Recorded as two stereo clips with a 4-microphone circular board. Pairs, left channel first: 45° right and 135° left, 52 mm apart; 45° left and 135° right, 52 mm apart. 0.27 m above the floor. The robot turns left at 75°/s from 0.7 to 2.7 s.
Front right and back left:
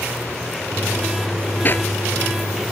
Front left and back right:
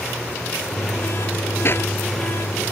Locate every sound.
1.6 s a clap: 5° left; by 1.9 s 10° right